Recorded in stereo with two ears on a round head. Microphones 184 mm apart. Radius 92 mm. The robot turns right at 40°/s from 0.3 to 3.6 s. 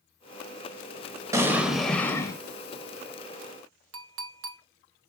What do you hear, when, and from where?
1.3 s an explosion: 20° right, 1.2 m; by 2.4 s 20° left, 1.2 m
3.9 s a clink: 65° right (ahead or behind), 0.8 m